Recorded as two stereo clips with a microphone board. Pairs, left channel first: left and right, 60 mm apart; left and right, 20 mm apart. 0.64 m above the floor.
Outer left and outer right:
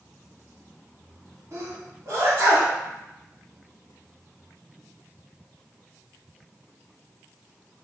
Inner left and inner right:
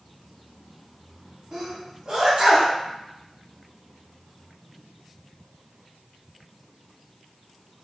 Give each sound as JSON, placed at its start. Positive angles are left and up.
{"t": 1.5, "sound": "a sneeze", "side_deg": -55, "distance_m": 1.5}